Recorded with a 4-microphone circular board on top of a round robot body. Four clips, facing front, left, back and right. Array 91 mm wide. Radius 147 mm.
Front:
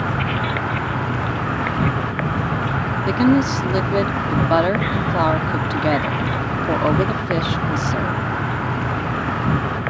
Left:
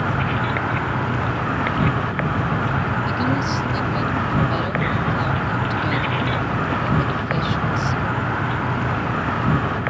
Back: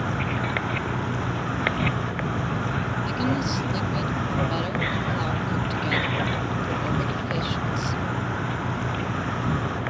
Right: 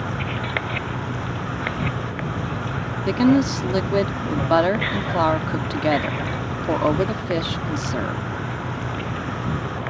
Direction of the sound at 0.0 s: 50° left.